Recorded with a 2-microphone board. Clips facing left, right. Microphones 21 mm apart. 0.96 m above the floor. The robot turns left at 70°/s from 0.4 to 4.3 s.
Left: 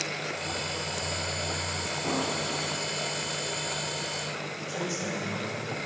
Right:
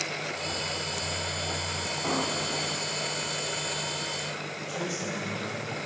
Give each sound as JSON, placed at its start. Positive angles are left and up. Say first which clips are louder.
{"t": 2.0, "sound": "an explosion", "louder": "right 1 dB", "azimuth_deg": -145, "distance_m": 1.3}
{"t": 4.7, "sound": "a man speaking", "louder": "left 1 dB", "side_deg": 10, "distance_m": 3.5}